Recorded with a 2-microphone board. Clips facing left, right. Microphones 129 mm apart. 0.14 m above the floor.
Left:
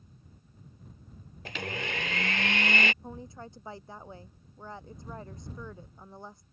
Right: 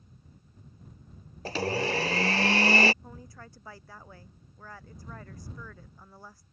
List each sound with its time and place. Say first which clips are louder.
1.4 s a blender: right 8 dB; 40° right (ahead or behind)
3.0 s a woman speaking: left 5 dB; 25° left (ahead or behind)